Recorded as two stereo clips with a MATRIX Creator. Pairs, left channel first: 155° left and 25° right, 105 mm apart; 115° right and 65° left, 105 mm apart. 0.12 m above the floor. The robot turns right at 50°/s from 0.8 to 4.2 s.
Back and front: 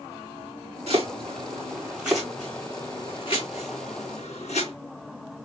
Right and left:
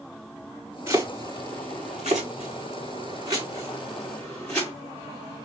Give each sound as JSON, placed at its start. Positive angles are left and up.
{"t": 0.9, "sound": "chopping", "azimuth_deg": -5, "distance_m": 4.5}